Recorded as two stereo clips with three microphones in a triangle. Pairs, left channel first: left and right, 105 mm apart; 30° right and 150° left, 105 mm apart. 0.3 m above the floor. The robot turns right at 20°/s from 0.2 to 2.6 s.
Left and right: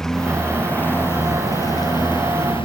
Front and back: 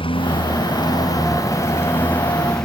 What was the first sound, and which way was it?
A lawn mower, 5° left.